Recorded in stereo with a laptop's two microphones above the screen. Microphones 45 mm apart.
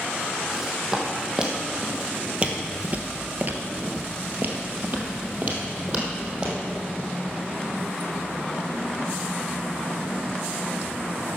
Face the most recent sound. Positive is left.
turn(degrees=-25)  # may be behind; listen again after turning